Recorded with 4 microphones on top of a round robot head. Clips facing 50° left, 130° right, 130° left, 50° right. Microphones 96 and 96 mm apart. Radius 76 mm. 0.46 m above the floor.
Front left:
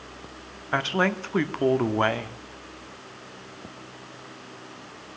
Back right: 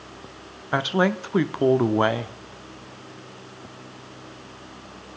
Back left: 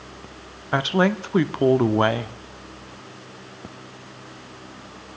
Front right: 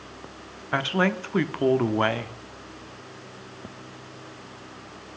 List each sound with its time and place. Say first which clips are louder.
0.7 s a woman speaking: back right 3 dB, back left 4 dB; 175° left, 0.9 m